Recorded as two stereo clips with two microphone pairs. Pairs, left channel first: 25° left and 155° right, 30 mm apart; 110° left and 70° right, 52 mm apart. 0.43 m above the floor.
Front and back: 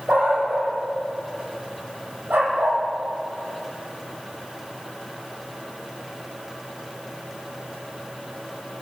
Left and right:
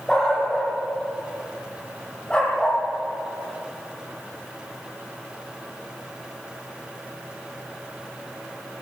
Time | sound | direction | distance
0.1 | a dog barking | 170° right | 8.5 m